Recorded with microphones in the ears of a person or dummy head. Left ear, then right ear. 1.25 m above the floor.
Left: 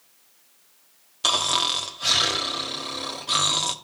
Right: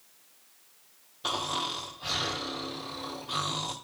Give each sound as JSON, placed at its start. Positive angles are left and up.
{"t": 1.2, "sound": "snoring", "side_deg": 55, "distance_m": 1.2}